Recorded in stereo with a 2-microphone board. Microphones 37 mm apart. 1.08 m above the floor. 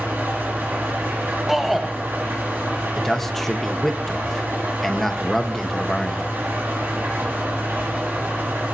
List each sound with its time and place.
0.0 s an engine running: 70° right (ahead or behind), 6.5 m
1.5 s a shout: 5° right (ahead or behind), 0.8 m
3.0 s a man speaking: 5° left (ahead or behind), 1.3 m